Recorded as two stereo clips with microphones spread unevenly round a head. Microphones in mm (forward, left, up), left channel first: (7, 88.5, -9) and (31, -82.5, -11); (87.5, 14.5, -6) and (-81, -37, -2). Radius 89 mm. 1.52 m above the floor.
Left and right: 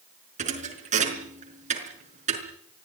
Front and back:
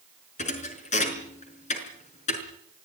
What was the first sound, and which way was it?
A thud, 35° right.